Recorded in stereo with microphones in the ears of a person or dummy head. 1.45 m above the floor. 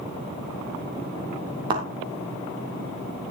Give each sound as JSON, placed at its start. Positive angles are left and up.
{"t": 1.7, "sound": "a thud", "side_deg": -30, "distance_m": 2.5}